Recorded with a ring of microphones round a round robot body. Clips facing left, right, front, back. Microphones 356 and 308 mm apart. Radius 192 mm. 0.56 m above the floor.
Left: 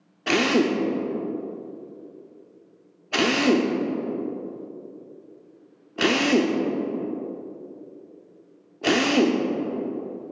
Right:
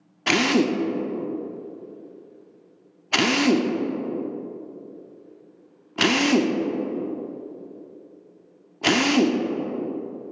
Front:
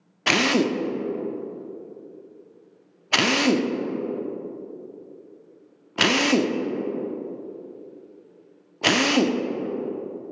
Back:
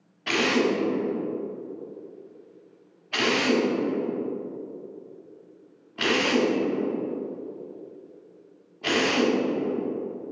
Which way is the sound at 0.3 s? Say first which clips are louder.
Even, front 1 dB; 20° right.